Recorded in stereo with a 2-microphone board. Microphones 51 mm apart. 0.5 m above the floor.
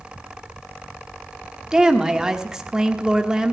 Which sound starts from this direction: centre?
A woman speaking, at 1.7 s.